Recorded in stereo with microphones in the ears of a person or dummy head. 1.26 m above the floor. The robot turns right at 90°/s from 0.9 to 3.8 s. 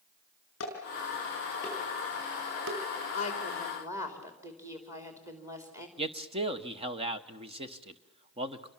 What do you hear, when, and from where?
0.6 s dishes clattering: 80° left, 6.5 m; by 2.8 s 85° right, 6.5 m
3.1 s a woman speaking: 135° left, 4 m; by 5.9 s 165° right, 4 m
6.0 s a man speaking: 30° right (ahead or behind), 0.9 m